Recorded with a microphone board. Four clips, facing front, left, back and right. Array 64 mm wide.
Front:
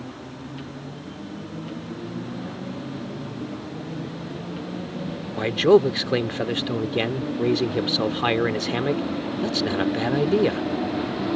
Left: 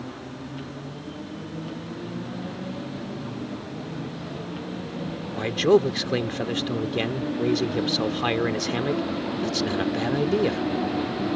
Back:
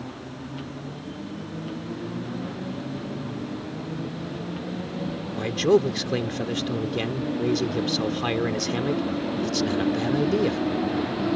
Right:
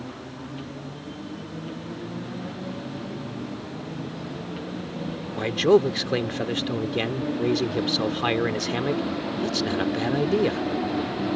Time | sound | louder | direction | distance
5.4 | a man speaking | even, front 4 dB | 5° right | ?